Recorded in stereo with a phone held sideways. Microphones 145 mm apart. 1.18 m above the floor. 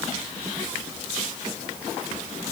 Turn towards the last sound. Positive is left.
No sound to turn to.